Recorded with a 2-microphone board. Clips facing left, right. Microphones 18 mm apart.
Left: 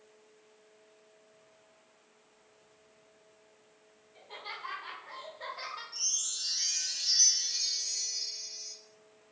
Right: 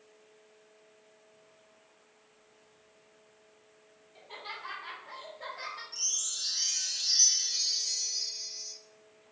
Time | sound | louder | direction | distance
4.2 | laughter | even | 10° right (ahead or behind) | 1.4 m
5.9 | a chime | even | 10° right (ahead or behind) | 0.7 m